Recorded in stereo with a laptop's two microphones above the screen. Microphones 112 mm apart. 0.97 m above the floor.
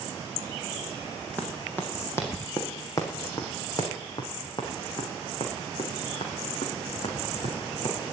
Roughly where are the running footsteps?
Centre.